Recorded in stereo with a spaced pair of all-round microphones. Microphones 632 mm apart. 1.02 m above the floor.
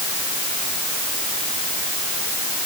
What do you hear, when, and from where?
Only background noise.